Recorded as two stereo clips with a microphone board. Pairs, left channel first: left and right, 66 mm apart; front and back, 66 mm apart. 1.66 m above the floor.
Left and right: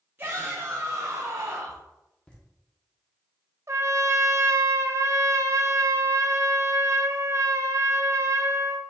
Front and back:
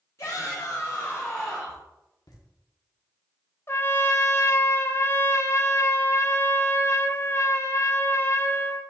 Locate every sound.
0.2 s a shout: 35° right, 1.5 m; by 1.8 s 95° right, 1.3 m
2.3 s laughter: 15° left, 1.6 m
3.7 s a trumpet: 50° right, 0.7 m